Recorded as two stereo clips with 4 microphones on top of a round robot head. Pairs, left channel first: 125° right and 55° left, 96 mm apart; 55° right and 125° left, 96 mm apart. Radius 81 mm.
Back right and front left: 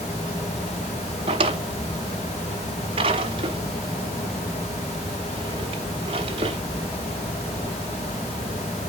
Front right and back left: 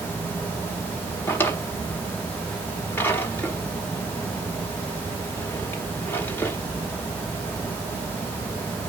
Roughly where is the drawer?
Ahead.